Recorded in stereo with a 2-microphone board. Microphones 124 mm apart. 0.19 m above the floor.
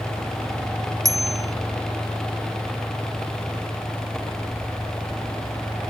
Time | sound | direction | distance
1.1 | a bicycle bell | 25° right (ahead or behind) | ?